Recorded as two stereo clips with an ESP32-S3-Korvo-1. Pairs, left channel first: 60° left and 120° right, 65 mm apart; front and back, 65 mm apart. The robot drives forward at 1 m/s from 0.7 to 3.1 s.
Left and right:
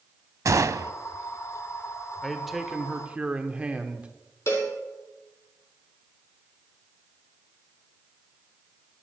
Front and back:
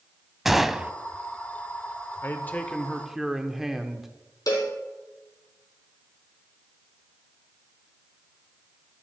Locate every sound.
0.5 s a gunshot: 95° right, 0.5 m; by 0.9 s 115° right, 0.6 m
2.2 s a man speaking: 20° right, 1.3 m; by 4.1 s 110° right, 1.0 m
4.5 s a cowbell: 15° left, 2.5 m